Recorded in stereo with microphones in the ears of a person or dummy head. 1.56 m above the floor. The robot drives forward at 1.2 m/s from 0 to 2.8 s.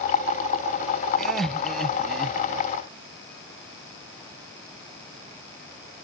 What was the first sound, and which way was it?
Laughter, centre (ahead or behind).